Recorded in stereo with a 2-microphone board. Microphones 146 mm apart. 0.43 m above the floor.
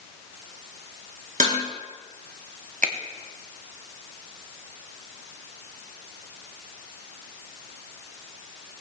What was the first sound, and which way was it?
Dishes clattering, 60° right (ahead or behind).